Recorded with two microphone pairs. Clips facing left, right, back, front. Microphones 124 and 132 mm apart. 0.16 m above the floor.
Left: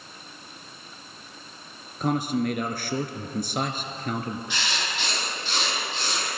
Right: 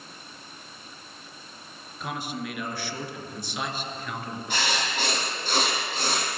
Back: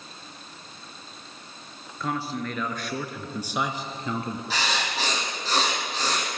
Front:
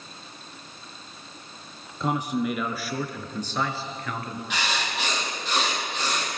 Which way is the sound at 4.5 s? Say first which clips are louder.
Right 3 dB, even; 130° right.